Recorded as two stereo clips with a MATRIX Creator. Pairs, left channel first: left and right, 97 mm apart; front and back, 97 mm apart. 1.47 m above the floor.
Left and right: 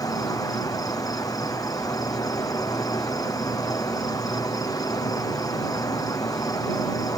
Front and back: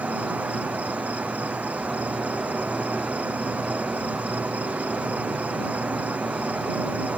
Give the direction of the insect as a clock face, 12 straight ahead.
8 o'clock.